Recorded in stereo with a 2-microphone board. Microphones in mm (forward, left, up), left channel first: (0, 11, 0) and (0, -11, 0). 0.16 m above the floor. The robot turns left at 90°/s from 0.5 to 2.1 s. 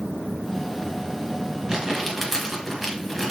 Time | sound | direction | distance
1.7 | crumpling | 35° right (ahead or behind) | 1.7 m